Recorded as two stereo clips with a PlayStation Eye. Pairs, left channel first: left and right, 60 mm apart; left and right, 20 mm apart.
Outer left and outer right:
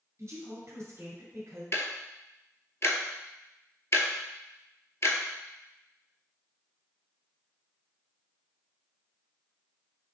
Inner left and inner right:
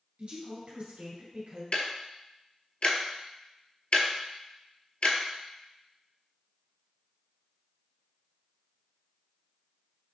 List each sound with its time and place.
0.2 s a woman speaking: 50° right (ahead or behind), 1.8 m
1.7 s ticking: 50° left (ahead or behind), 0.7 m